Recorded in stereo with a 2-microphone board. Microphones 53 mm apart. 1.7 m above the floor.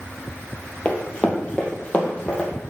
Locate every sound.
0.8 s running footsteps: 25° left (ahead or behind), 1.9 m; by 2.5 s 20° left (ahead or behind), 2.5 m